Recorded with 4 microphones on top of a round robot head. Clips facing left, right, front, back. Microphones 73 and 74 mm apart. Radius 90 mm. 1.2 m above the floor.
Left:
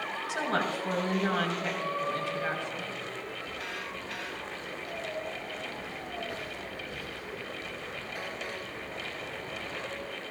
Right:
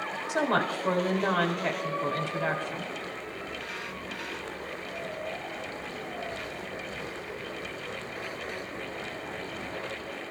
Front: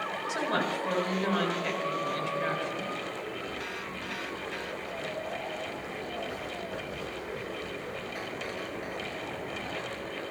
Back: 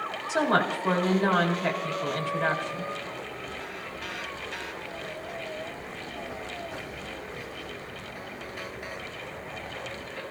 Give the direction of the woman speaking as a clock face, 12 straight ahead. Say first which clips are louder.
Right 4 dB, back 7 dB; 4 o'clock.